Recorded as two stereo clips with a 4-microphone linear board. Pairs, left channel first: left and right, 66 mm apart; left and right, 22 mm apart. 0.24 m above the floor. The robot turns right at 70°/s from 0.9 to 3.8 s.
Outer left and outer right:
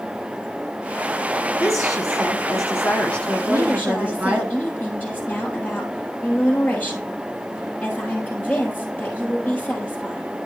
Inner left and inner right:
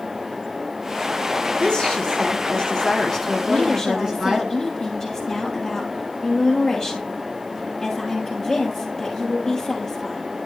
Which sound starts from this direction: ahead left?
A woman speaking, at 1.6 s.